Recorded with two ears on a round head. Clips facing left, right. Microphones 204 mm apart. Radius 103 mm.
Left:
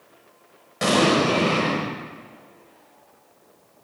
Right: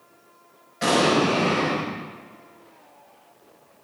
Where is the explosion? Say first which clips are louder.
Left 1 dB; 65° left (ahead or behind), 4.5 m.